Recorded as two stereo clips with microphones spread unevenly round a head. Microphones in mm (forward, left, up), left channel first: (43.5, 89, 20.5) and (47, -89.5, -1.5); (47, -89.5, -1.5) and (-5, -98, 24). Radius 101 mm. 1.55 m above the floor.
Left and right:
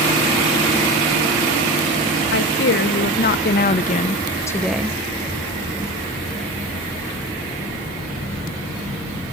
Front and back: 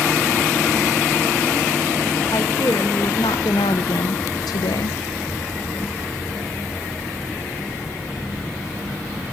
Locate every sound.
2.3 s a woman speaking: 80° left, 2 m; by 5.0 s 15° right, 0.8 m